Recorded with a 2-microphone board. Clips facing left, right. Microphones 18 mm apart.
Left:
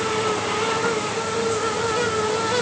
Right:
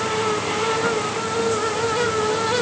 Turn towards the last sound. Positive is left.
No sound to turn to.